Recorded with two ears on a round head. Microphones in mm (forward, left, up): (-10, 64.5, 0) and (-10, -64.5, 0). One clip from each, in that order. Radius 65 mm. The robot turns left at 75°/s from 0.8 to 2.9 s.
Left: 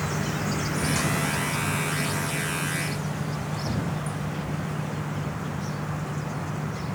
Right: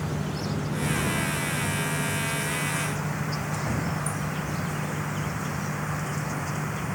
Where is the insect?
120° left; by 7.0 s 35° right.